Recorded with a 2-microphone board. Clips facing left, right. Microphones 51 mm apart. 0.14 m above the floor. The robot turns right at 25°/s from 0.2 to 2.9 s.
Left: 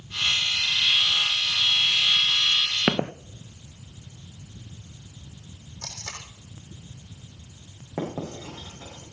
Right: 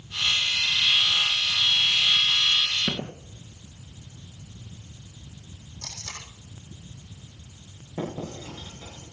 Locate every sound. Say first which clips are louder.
2.9 s footsteps: left 7 dB; 65° left (ahead or behind), 0.9 m
5.8 s tape being pulled: left 2 dB; 50° left (ahead or behind), 6 m
8.0 s writing: left 1 dB; 75° left (ahead or behind), 9 m